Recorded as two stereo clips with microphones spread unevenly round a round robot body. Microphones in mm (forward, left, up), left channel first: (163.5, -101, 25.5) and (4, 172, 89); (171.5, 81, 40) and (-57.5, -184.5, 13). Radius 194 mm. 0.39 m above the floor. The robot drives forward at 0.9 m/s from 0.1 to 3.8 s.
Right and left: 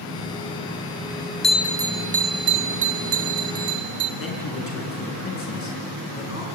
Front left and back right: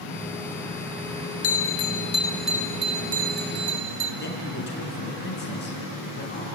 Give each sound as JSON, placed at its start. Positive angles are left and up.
{"t": 1.4, "sound": "a bell", "azimuth_deg": 15, "distance_m": 1.0}
{"t": 4.2, "sound": "a man speaking", "azimuth_deg": -10, "distance_m": 6.0}